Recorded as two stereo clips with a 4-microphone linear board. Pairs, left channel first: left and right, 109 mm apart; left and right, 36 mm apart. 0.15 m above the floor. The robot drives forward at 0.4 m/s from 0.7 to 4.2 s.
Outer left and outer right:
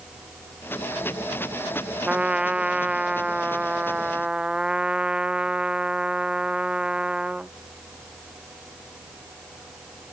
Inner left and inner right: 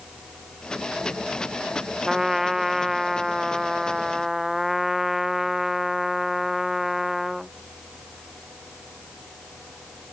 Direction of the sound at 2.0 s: 10° right (ahead or behind).